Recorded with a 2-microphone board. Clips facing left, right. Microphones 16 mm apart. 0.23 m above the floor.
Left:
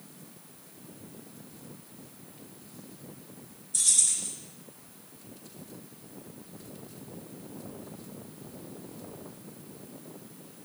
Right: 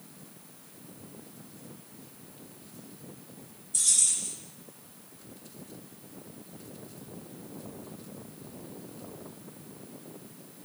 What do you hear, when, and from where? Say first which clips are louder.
3.7 s keys jangling: even; 5° left (ahead or behind), 0.8 m